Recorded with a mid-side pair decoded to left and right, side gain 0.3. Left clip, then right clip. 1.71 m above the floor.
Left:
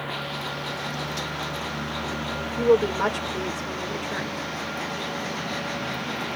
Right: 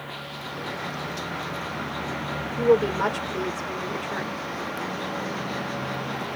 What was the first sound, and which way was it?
A woman speaking, 15° left.